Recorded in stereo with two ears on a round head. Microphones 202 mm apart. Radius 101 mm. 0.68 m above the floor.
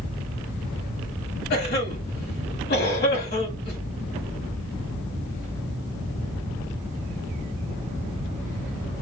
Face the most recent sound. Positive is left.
turn(degrees=45)  # may be behind; listen again after turning